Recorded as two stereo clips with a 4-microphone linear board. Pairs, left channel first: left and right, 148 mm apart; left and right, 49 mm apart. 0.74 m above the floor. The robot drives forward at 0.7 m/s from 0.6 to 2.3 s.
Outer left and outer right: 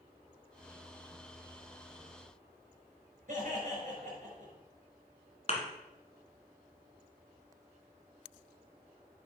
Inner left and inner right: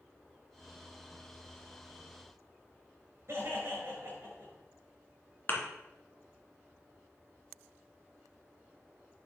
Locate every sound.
3.3 s laughter: 55° right (ahead or behind), 4.5 m
5.5 s a thud: 40° left (ahead or behind), 1.8 m